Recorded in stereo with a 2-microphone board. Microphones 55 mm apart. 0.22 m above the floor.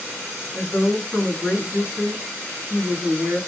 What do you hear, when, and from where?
0.5 s a woman speaking: 25° right (ahead or behind), 1.5 m